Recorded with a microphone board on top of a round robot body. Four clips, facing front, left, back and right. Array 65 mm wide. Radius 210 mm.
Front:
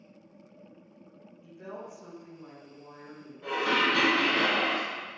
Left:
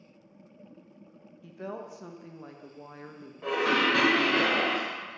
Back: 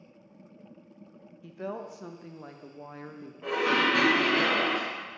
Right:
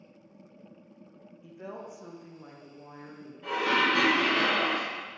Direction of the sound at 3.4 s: 115° left.